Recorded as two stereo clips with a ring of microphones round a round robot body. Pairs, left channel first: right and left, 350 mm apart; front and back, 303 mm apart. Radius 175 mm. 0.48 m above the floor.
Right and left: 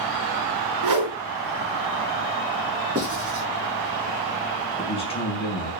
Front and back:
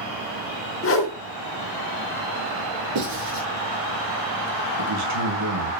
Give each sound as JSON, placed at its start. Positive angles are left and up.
{"t": 0.8, "sound": "a whoosh", "azimuth_deg": 50, "distance_m": 3.5}
{"t": 3.0, "sound": "writing", "azimuth_deg": 160, "distance_m": 7.5}
{"t": 4.8, "sound": "a man speaking", "azimuth_deg": -165, "distance_m": 4.5}